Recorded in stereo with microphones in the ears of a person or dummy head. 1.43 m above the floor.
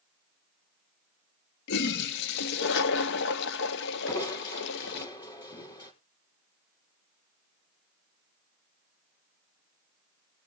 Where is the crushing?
25° left (ahead or behind), 5.5 m.